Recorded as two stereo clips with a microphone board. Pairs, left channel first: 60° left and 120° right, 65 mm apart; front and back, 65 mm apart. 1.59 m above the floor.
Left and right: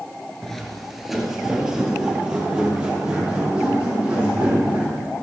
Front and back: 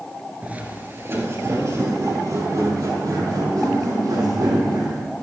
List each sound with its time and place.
0.4 s footsteps: 140° left, 1.7 m; by 5.0 s 170° left, 5.5 m